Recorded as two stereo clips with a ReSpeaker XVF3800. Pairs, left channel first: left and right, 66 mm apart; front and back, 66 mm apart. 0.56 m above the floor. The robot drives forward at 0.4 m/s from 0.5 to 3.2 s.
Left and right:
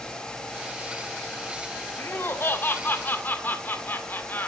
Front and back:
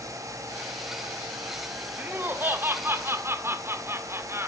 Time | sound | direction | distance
2.0 | laughter | 130° left | 1.7 m